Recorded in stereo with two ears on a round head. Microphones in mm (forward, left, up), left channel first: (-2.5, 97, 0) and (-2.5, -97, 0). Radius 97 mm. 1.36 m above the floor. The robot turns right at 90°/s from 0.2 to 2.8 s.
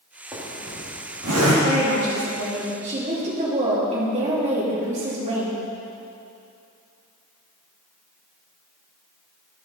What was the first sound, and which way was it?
A zipper, 5° right (ahead or behind).